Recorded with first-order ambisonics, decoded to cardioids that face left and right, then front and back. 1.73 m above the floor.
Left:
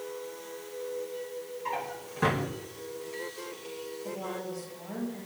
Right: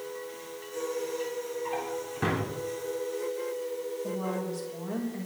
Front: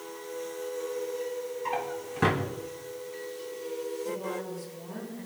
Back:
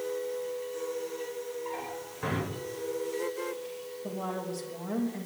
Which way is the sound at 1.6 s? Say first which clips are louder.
Right 2 dB, front 5 dB; straight ahead.